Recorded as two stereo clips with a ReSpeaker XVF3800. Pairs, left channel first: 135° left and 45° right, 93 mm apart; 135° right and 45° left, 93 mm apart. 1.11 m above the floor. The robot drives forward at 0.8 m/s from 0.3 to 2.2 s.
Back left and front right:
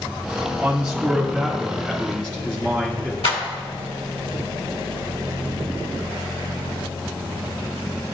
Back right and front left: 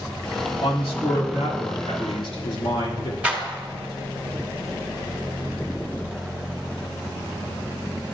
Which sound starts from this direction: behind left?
A clap, at 3.2 s.